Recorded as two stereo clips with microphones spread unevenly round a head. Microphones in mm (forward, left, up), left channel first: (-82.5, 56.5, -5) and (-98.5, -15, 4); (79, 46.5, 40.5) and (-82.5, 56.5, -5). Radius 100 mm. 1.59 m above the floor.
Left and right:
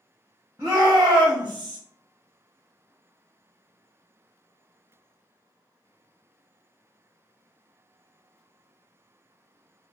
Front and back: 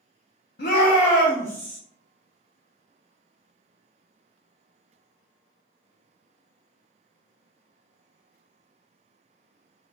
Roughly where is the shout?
Ahead right.